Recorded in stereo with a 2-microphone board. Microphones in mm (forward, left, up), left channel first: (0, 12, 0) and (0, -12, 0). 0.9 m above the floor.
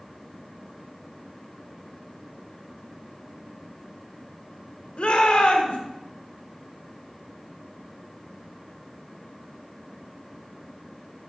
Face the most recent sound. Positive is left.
turn(degrees=55)  # may be behind; listen again after turning